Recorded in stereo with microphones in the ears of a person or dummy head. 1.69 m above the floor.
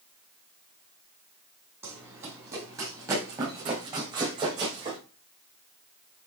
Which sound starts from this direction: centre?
Running footsteps, at 1.8 s.